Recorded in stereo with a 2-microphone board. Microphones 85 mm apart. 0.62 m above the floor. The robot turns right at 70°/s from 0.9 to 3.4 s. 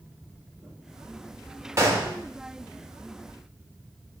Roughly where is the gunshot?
Right.